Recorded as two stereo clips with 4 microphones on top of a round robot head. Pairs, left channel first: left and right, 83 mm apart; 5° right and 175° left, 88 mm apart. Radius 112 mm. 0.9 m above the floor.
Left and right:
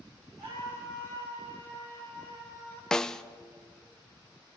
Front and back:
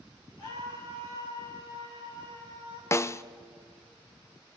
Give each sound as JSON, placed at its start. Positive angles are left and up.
{"t": 0.4, "sound": "a scream", "azimuth_deg": -40, "distance_m": 8.0}
{"t": 2.9, "sound": "a snare drum", "azimuth_deg": 15, "distance_m": 0.6}